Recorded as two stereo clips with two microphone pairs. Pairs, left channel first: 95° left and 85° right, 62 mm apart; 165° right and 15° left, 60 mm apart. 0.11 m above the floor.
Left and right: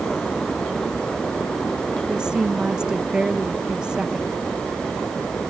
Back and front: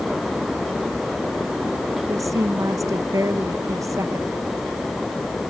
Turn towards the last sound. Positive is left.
turn(degrees=-10)